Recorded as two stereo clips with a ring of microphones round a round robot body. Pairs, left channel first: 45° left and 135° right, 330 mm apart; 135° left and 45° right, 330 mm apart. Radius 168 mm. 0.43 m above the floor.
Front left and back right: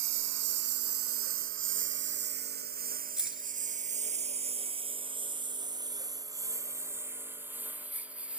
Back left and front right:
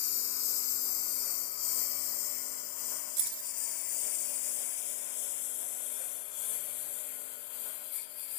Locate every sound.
0.0 s a lawn mower: straight behind; by 8.4 s 140° left
3.2 s keys jangling: 50° right